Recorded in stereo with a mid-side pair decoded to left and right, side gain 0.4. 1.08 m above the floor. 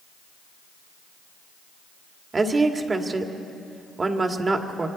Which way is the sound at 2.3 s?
35° right.